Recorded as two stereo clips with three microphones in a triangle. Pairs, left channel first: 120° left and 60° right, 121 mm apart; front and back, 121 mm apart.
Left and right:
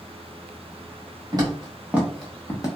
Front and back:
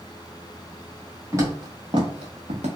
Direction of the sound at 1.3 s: 115° right.